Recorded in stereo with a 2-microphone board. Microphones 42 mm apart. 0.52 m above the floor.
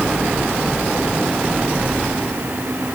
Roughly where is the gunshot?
I don't hear a gunshot.